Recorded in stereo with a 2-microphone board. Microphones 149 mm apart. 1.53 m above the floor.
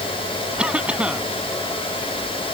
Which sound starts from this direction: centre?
A cough, at 0.6 s.